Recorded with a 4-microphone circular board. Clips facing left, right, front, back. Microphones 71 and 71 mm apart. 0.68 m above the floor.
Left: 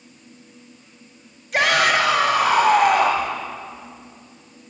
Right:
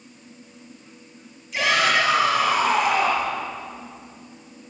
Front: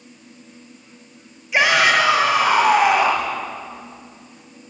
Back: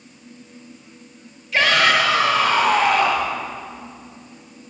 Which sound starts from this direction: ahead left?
A shout, at 1.5 s.